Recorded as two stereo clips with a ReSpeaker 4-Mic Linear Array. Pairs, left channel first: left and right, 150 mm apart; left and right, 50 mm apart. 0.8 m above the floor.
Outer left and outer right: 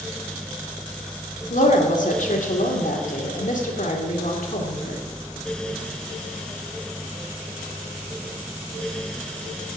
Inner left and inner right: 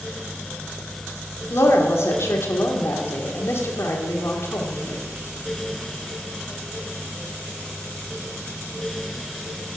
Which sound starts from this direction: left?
A woman speaking, at 1.5 s.